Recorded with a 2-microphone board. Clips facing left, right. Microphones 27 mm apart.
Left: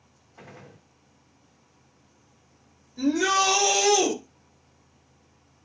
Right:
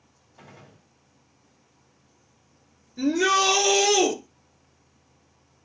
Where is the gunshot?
60° left (ahead or behind), 1.3 m.